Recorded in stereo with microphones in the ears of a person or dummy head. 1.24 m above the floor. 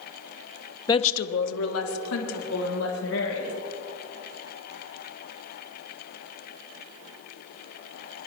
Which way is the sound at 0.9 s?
25° left (ahead or behind).